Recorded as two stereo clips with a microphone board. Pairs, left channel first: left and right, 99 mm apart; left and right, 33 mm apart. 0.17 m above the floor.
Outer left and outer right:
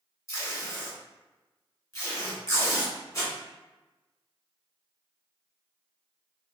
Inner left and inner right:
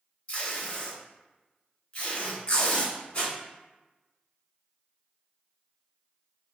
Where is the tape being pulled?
35° left (ahead or behind), 1.4 m.